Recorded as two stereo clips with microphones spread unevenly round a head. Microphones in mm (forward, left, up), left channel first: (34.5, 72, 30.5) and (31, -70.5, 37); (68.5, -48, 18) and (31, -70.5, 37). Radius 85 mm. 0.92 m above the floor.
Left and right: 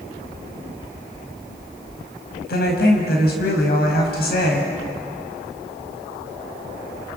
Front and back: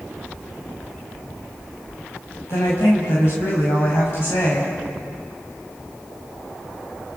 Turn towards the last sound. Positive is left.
turn(degrees=80)